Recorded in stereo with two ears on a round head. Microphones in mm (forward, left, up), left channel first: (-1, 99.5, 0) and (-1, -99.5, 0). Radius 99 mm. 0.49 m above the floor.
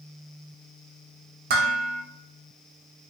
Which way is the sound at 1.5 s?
40° right (ahead or behind).